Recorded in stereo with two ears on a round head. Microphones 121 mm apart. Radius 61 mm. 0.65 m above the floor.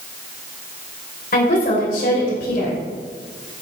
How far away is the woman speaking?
About 2.5 m.